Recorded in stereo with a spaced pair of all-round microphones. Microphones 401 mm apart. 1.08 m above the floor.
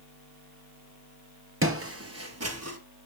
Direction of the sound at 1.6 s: 30° right (ahead or behind).